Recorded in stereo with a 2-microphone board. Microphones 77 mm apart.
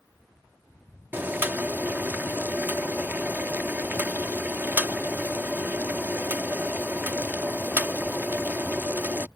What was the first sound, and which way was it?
Boiling, 25° right (ahead or behind).